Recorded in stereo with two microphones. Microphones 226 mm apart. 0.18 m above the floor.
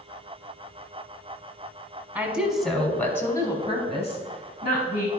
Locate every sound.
2.1 s a woman speaking: 5° right (ahead or behind), 1.4 m; by 5.1 s 35° left (ahead or behind), 1.6 m